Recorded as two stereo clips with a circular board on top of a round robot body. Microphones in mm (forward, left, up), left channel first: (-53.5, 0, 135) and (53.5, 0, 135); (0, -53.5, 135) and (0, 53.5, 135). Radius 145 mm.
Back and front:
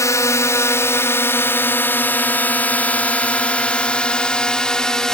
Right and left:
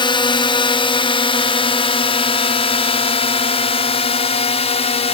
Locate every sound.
0.0 s a drone: 120° right; by 5.1 s 95° right